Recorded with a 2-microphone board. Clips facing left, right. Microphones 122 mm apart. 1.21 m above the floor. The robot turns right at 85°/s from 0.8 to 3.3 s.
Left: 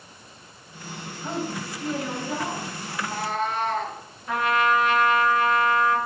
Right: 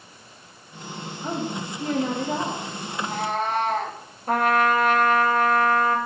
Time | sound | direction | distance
1.2 | a woman speaking | 155° right | 1.3 m
2.9 | a cat meowing | 170° left | 4.5 m
4.3 | a trumpet | 45° right (ahead or behind) | 1.0 m